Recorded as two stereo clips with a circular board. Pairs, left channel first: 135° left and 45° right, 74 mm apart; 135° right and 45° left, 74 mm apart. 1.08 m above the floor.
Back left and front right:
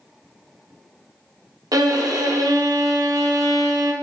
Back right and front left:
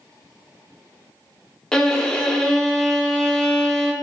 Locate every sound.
1.7 s a violin: 55° right, 0.5 m